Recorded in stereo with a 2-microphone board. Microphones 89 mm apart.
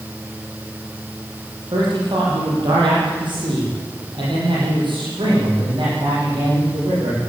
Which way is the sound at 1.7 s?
60° right (ahead or behind).